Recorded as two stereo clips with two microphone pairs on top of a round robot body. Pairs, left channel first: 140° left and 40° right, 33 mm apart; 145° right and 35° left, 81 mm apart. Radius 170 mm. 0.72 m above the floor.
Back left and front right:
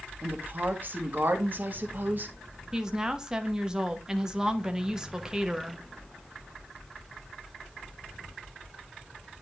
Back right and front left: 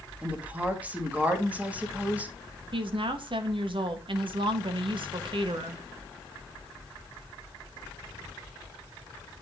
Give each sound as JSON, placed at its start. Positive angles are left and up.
{"t": 0.2, "sound": "a woman speaking", "azimuth_deg": -45, "distance_m": 1.7}
{"t": 2.7, "sound": "a woman speaking", "azimuth_deg": 35, "distance_m": 1.2}